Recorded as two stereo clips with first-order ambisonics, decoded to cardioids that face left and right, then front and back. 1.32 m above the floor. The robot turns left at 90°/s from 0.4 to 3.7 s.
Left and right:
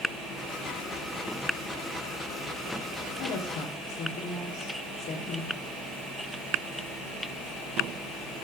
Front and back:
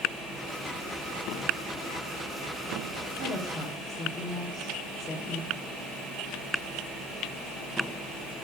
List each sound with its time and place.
3.2 s a woman speaking: 140° left, 3.5 m; by 5.5 s 95° left, 3.5 m